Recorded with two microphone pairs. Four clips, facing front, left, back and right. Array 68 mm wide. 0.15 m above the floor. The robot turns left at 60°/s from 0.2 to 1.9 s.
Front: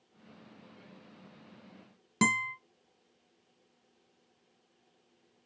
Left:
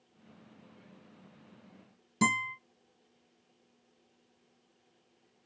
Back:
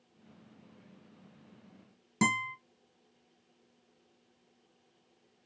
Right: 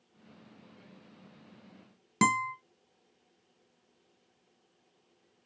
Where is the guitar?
80° right, 1.7 m.